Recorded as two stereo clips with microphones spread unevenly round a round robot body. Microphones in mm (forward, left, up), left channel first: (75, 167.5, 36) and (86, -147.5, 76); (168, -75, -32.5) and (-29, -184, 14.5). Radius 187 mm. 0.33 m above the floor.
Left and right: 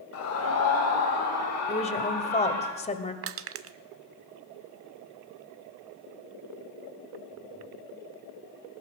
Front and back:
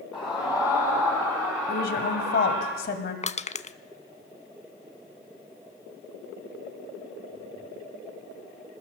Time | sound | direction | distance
0.1 | a scream | 105° left | 2 m
1.7 | a woman speaking | 35° left | 1.8 m
3.2 | crushing | 35° right | 0.7 m